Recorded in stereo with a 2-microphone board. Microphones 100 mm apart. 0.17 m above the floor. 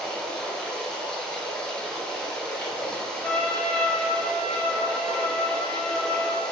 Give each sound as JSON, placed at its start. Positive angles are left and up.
{"t": 0.0, "sound": "running water", "side_deg": 5, "distance_m": 2.5}
{"t": 3.2, "sound": "a trumpet", "side_deg": 10, "distance_m": 1.6}